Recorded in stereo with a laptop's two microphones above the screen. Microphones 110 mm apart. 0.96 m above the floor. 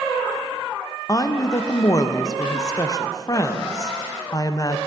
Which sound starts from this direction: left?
A woman speaking, at 1.1 s.